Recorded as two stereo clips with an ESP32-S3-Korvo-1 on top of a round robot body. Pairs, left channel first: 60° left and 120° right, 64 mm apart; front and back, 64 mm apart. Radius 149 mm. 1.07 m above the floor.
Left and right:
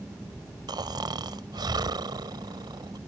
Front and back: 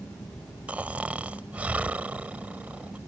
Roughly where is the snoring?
Right.